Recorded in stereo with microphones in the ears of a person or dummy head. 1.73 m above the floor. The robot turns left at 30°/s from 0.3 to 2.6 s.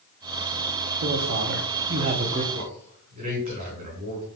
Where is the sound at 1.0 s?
105° right, 1.2 m; by 2.4 s 145° right, 1.2 m.